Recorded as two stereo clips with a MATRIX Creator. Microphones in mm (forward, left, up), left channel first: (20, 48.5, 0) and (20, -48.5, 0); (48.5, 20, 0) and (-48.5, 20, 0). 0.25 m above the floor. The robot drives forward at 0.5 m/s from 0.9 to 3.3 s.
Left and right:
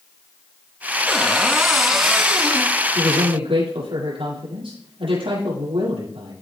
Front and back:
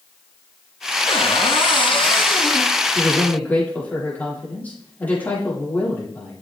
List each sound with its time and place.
1.1 s a cupboard door: straight ahead, 2.0 m; by 2.8 s 5° right, 1.2 m
3.0 s a man speaking: 75° right, 8 m